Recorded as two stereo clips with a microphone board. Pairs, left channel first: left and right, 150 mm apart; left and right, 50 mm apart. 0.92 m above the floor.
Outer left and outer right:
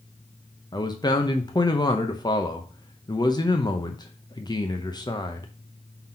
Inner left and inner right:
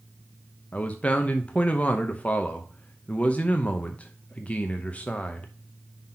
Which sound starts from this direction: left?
A man speaking, at 0.7 s.